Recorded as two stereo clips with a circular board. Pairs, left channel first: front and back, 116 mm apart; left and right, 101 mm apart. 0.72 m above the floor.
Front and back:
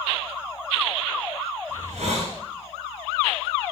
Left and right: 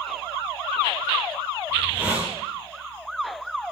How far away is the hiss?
About 6.5 m.